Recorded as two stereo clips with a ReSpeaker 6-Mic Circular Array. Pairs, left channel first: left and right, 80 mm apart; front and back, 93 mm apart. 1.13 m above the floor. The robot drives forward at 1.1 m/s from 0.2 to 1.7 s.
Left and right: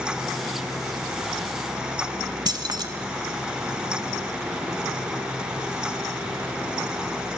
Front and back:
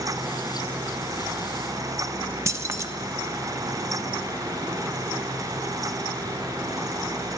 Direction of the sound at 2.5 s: 120° right.